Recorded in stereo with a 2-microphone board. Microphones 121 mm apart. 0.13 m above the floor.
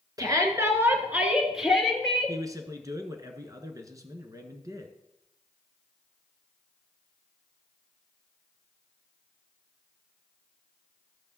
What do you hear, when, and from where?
0.2 s a shout: 30° right (ahead or behind), 1.7 m; by 2.4 s 5° left (ahead or behind), 2.5 m
2.3 s a man speaking: 30° right (ahead or behind), 1.3 m